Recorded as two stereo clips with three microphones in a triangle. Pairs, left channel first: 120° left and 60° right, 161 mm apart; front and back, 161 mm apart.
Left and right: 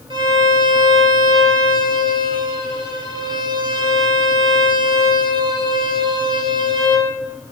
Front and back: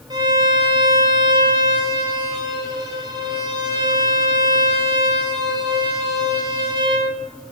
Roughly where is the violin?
Behind right.